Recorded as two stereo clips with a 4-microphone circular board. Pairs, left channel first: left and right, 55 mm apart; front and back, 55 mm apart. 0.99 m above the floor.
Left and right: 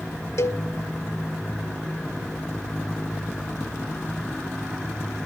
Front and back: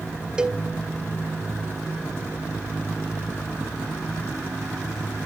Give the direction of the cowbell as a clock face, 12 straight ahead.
8 o'clock.